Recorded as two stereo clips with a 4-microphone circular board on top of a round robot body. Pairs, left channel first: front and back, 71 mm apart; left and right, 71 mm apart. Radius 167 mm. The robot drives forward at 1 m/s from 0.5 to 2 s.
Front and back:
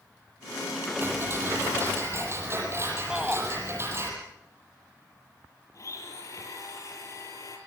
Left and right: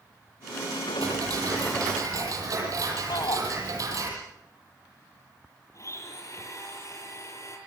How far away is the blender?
About 7.5 m.